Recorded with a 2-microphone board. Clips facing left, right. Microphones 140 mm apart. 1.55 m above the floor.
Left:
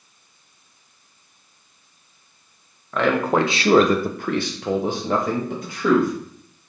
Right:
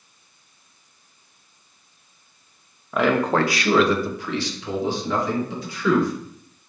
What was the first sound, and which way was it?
A man speaking, 10° right (ahead or behind).